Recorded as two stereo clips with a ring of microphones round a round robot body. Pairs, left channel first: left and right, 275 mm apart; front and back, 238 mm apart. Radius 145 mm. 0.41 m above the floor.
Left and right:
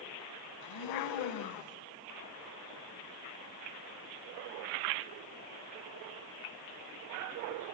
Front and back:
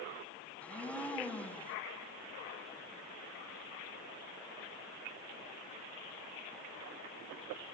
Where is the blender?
85° left, 1.1 m.